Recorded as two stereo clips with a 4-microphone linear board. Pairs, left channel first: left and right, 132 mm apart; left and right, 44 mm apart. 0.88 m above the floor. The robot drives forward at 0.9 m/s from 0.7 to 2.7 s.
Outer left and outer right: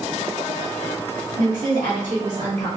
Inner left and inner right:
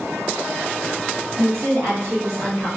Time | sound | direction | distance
1.4 | a woman speaking | 75° right (ahead or behind) | 1.8 m